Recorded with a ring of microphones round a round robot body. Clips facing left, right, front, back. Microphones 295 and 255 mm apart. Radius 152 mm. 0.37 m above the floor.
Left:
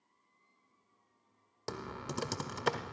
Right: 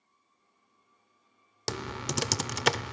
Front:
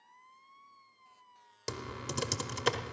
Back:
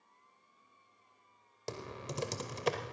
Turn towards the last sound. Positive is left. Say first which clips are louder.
# right 6 dB, front 2 dB
turn(degrees=-70)